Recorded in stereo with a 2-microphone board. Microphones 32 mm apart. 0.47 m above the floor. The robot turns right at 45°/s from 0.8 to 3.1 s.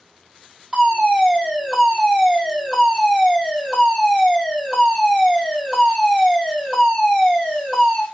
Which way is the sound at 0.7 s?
25° right (ahead or behind).